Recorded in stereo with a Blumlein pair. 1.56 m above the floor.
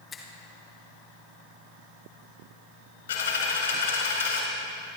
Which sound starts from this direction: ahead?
A finger snap, at 0.1 s.